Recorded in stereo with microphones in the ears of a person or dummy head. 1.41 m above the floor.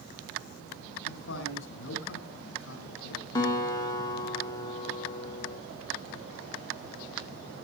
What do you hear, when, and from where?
1.1 s a man speaking: 65° left (ahead or behind), 7.5 m
3.4 s a guitar: 20° left (ahead or behind), 3.5 m